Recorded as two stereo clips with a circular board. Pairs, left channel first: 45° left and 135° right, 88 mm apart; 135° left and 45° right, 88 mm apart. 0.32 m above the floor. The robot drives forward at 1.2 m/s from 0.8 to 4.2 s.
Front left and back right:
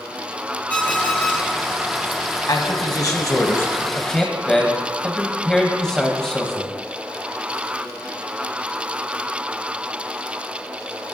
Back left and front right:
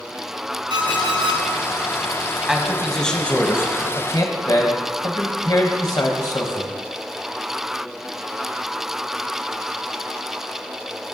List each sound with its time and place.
0.7 s an alarm clock: 25° right, 2.5 m; by 1.4 s 35° right, 2 m
2.5 s a man speaking: 35° left, 2.0 m; by 6.7 s 125° left, 1.6 m